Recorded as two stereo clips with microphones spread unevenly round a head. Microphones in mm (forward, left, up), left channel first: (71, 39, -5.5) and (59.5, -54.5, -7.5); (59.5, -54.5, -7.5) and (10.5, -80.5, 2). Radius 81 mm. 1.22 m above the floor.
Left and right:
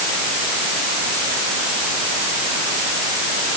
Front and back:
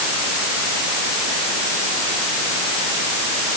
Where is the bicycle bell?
I don't hear a bicycle bell.